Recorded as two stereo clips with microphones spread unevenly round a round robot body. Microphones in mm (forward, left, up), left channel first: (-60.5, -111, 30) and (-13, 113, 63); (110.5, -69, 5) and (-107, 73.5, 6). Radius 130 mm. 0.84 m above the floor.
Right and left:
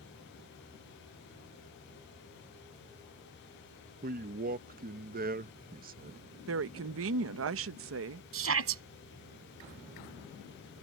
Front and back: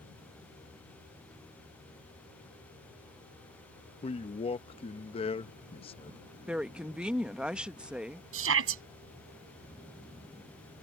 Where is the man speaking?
30° left.